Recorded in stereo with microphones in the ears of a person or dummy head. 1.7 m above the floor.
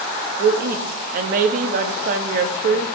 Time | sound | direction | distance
0.4 | a woman speaking | 50° right (ahead or behind) | 0.7 m